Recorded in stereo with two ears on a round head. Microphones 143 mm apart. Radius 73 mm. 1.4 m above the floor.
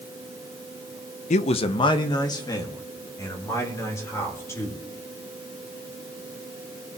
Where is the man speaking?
50° left (ahead or behind), 0.6 m; by 4.8 s 20° left (ahead or behind), 4.5 m.